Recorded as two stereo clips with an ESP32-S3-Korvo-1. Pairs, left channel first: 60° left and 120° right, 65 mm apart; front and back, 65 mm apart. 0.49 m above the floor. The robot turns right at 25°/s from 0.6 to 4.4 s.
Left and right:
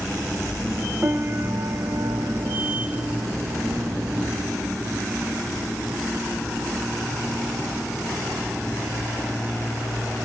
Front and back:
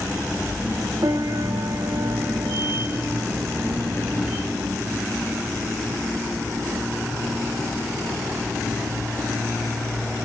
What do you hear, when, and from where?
1.0 s a piano: 175° right, 0.6 m; by 4.5 s 90° right, 0.6 m